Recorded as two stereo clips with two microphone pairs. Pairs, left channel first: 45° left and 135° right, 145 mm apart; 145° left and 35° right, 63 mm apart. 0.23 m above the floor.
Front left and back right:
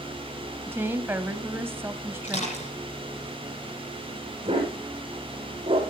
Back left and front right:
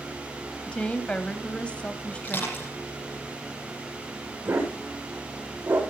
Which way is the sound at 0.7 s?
175° left.